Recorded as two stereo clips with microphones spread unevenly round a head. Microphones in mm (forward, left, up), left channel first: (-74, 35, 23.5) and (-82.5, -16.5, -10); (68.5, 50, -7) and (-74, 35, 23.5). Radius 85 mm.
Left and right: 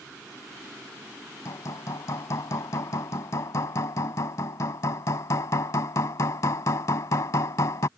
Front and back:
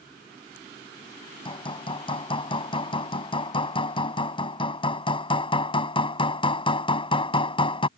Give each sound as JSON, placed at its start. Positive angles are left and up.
{"t": 1.4, "sound": "hammering", "azimuth_deg": 65}